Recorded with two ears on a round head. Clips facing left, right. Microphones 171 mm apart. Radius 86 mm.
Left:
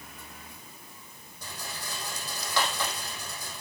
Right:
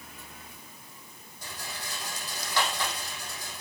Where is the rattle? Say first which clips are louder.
Left 1 dB; 80° left, 5 m.